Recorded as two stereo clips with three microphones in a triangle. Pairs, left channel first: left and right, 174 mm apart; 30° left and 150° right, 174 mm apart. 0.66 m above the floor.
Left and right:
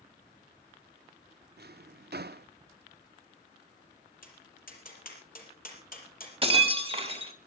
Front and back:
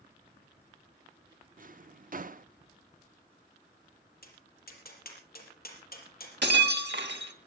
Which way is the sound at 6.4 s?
145° right.